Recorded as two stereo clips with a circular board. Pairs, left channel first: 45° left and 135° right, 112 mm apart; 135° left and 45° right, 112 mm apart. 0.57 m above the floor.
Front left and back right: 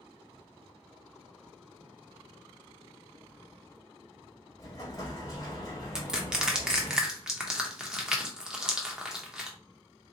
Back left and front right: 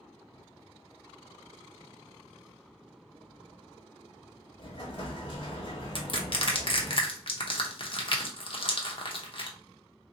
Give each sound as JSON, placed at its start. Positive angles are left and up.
{"t": 4.6, "sound": "an explosion", "azimuth_deg": 100, "distance_m": 1.4}
{"t": 6.0, "sound": "crushing", "azimuth_deg": 145, "distance_m": 0.8}